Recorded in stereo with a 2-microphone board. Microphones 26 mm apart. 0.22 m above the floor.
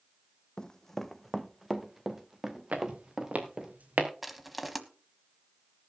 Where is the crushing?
5° right (ahead or behind), 1.3 m.